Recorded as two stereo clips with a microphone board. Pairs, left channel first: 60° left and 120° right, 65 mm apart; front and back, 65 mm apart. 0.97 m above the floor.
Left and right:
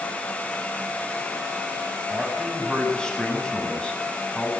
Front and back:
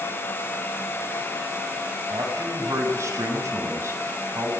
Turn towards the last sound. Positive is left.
turn(degrees=135)